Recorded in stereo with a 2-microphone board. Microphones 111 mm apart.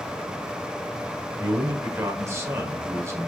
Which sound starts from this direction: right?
A man speaking, at 1.4 s.